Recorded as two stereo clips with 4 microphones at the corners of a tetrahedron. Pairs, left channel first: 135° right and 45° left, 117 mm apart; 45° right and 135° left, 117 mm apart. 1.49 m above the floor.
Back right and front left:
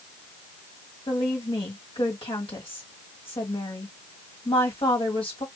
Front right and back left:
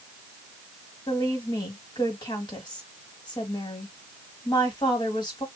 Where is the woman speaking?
95° right, 1.9 m.